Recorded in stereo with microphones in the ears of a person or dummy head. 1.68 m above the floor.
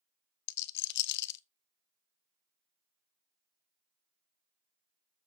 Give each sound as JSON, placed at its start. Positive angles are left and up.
{"t": 0.5, "sound": "a rattle", "side_deg": 60, "distance_m": 0.6}